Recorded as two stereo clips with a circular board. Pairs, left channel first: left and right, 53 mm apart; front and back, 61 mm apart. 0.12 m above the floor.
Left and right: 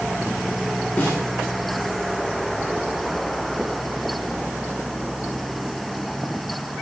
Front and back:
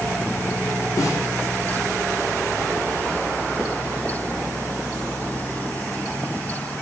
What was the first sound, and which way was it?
A snare drum, 30° left.